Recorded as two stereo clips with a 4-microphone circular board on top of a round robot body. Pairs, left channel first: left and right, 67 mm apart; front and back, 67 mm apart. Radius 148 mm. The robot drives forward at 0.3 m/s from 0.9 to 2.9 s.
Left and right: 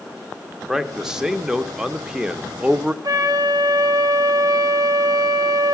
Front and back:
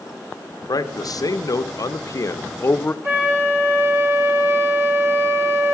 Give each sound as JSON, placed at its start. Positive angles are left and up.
{"t": 0.7, "sound": "a man speaking", "azimuth_deg": -5, "distance_m": 1.0}
{"t": 3.0, "sound": "a flute", "azimuth_deg": -125, "distance_m": 2.5}